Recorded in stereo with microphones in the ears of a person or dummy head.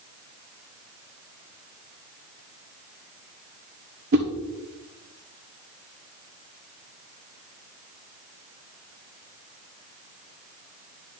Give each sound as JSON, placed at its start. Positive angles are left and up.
{"t": 4.1, "sound": "a whoosh", "side_deg": -60, "distance_m": 0.9}